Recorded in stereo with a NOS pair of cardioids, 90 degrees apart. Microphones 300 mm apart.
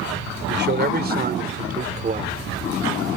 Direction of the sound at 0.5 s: 35° right.